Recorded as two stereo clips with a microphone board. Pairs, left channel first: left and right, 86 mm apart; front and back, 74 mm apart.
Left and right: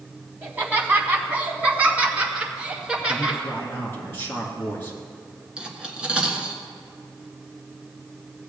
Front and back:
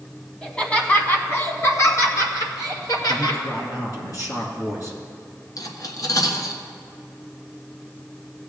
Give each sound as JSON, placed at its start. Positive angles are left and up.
{"t": 0.4, "sound": "laughter", "azimuth_deg": -65, "distance_m": 1.5}
{"t": 3.1, "sound": "a man speaking", "azimuth_deg": 30, "distance_m": 3.0}
{"t": 5.6, "sound": "cutlery clinking", "azimuth_deg": -10, "distance_m": 1.4}